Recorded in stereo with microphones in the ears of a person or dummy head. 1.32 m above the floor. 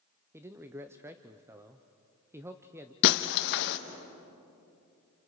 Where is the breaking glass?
60° left (ahead or behind), 0.9 m.